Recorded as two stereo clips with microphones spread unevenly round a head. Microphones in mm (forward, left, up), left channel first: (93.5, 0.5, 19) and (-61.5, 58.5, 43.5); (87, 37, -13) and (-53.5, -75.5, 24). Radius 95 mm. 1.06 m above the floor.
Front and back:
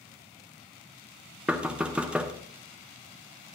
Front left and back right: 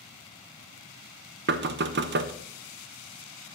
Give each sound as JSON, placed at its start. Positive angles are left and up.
{"t": 1.5, "sound": "knocking", "azimuth_deg": -115, "distance_m": 0.7}